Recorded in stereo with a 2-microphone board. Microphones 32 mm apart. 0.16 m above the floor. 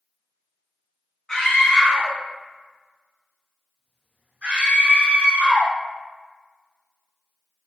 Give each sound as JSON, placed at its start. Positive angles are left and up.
{"t": 1.3, "sound": "a scream", "side_deg": 20, "distance_m": 1.6}